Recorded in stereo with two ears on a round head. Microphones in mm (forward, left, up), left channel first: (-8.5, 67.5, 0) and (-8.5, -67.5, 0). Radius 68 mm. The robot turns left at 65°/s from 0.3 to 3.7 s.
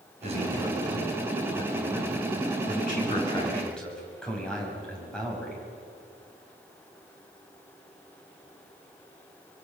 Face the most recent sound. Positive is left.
turn(degrees=5)